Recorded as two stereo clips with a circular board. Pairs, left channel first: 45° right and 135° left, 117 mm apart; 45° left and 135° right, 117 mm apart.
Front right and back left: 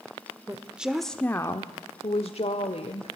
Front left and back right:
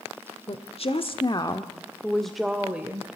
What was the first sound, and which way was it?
A woman speaking, 65° left.